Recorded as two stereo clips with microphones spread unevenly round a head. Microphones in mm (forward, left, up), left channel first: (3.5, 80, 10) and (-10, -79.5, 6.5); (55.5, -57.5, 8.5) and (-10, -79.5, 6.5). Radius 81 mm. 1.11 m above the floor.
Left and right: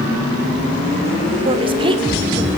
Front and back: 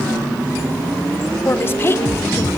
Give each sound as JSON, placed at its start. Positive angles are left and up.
{"t": 1.4, "sound": "a woman speaking", "azimuth_deg": -35, "distance_m": 3.0}